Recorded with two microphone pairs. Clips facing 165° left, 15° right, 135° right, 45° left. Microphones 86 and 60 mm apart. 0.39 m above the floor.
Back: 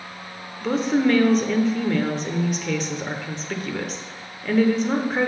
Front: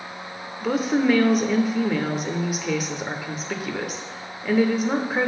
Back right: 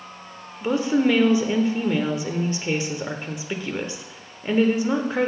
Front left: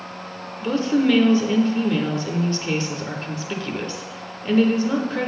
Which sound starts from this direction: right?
A woman speaking, at 0.6 s.